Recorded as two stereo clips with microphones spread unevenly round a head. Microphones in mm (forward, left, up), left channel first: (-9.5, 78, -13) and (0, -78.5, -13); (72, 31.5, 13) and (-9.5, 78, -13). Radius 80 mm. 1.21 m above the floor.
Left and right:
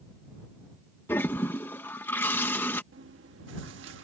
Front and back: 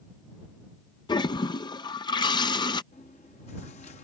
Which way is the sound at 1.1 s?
15° left.